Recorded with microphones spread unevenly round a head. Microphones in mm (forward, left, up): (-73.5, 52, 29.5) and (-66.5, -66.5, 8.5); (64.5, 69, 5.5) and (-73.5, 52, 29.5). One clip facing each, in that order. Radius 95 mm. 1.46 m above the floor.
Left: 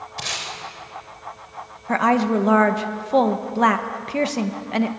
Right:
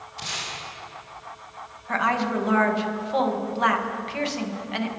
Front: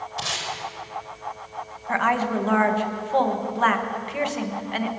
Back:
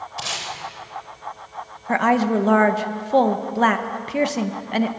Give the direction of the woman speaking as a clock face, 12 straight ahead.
7 o'clock.